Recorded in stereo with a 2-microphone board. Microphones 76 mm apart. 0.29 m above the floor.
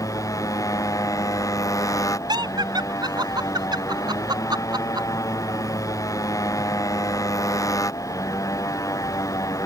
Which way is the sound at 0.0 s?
45° left (ahead or behind).